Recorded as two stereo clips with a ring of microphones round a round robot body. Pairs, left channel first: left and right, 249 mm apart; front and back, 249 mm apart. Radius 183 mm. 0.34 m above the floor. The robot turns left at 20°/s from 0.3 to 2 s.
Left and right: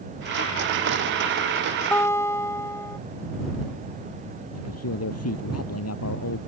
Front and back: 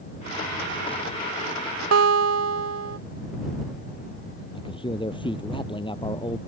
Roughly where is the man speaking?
Left.